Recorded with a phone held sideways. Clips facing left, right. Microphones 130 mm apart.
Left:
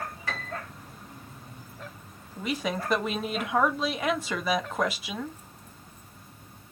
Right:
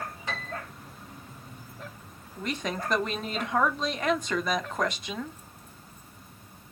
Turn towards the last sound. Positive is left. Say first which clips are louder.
# left 2 dB
turn(degrees=5)  # may be behind; listen again after turning